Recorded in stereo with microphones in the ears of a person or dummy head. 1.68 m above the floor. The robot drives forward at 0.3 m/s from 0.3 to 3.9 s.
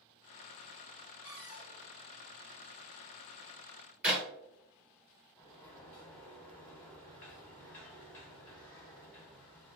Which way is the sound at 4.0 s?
15° right (ahead or behind).